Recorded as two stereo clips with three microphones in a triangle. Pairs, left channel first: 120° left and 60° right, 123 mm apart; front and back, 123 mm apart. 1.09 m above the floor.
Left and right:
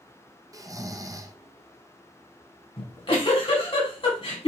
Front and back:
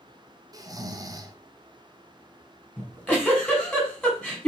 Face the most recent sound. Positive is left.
turn(degrees=85)